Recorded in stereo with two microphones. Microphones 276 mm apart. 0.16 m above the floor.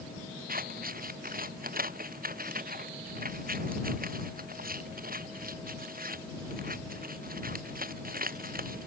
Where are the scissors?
30° right (ahead or behind).